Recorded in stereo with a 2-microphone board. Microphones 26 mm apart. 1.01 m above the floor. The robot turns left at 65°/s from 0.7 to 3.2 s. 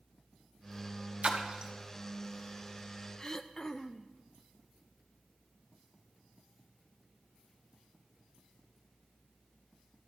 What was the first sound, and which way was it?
A splash, 55° right (ahead or behind).